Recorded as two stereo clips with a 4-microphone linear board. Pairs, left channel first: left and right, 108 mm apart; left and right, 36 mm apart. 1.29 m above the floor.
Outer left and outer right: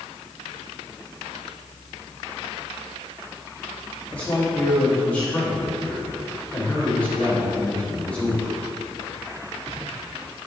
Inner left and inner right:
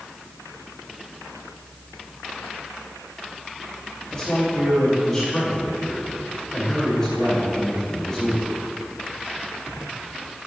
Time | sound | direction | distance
4.1 | a man speaking | 15° left (ahead or behind) | 3 m